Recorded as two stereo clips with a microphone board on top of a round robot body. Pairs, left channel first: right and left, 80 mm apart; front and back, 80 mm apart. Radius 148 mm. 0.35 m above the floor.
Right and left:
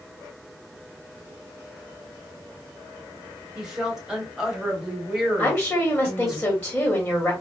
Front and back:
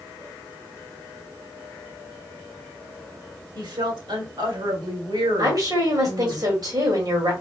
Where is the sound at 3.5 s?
170° left, 2.5 m.